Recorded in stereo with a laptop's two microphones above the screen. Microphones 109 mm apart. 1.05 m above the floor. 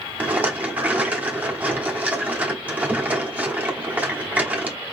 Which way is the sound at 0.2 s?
15° right (ahead or behind).